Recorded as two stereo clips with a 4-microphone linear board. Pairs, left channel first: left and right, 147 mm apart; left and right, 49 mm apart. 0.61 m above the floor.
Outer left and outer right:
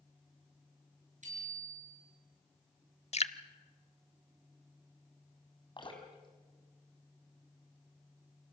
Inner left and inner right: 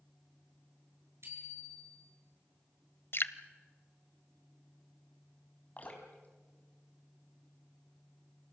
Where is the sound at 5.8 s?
35° left (ahead or behind), 3.5 m.